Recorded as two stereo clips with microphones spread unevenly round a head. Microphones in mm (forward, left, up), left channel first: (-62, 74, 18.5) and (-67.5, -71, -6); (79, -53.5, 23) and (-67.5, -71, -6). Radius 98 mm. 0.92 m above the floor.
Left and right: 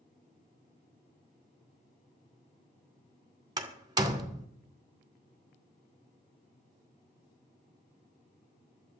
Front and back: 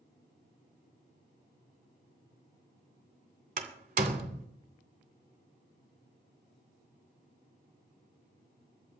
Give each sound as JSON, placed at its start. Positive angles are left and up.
{"t": 3.6, "sound": "a door slam", "azimuth_deg": -155, "distance_m": 2.0}